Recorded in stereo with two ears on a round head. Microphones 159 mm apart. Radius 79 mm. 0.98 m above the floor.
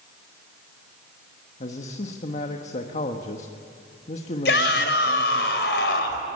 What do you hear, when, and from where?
1.6 s a man speaking: 45° left (ahead or behind), 1.4 m
4.5 s a shout: 75° left (ahead or behind), 4.5 m